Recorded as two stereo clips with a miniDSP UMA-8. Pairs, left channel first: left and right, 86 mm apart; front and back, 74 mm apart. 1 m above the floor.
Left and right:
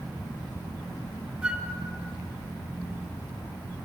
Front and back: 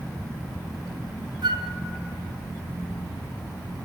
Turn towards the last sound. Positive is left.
turn(degrees=-170)